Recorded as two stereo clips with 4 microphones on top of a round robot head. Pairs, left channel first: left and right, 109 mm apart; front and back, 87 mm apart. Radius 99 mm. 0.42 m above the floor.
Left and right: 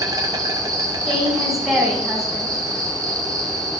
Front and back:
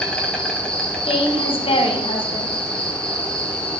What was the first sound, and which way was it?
An insect, 70° right.